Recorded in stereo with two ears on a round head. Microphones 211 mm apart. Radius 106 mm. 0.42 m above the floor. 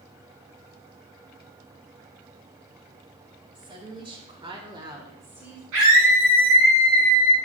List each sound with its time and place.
3.5 s a woman speaking: 20° right (ahead or behind), 2.5 m; by 5.6 s 5° right (ahead or behind), 1.5 m
5.7 s a scream: 60° right (ahead or behind), 4 m